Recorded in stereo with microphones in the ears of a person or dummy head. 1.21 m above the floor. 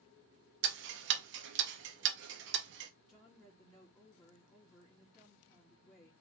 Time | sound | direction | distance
0.6 | ticking | 60° right (ahead or behind) | 1.1 m
3.1 | a woman speaking | 15° left (ahead or behind) | 2.5 m